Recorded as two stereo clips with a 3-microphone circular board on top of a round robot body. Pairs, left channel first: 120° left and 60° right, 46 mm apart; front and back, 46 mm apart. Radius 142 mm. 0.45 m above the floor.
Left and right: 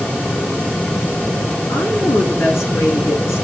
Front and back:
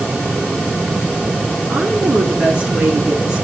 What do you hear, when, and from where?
1.7 s a woman speaking: 110° left, 7 m